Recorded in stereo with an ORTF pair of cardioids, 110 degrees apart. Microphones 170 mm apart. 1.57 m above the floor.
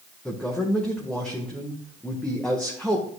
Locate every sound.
0.2 s a man speaking: 5° left, 1.4 m